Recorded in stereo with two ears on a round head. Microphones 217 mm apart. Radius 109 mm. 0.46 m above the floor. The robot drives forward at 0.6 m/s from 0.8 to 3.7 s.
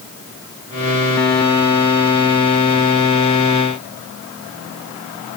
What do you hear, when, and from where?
Only background noise.